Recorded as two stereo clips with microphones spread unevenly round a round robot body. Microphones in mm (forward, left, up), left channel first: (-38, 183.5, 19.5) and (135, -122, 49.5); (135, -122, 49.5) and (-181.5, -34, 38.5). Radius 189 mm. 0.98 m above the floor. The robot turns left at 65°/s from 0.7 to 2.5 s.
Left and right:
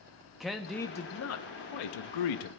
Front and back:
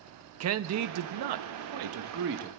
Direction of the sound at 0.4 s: 150° right.